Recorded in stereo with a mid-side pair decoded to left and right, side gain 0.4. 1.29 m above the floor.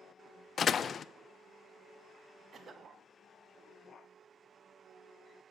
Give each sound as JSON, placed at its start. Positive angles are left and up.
{"t": 0.6, "sound": "a door slam", "azimuth_deg": 55, "distance_m": 0.7}
{"t": 2.5, "sound": "a cough", "azimuth_deg": -50, "distance_m": 2.0}